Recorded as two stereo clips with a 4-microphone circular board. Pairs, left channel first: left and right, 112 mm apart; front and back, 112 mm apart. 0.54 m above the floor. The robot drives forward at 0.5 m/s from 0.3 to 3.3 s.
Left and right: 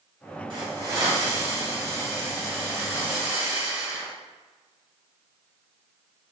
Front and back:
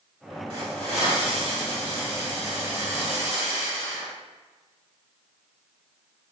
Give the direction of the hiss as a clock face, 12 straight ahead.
5 o'clock.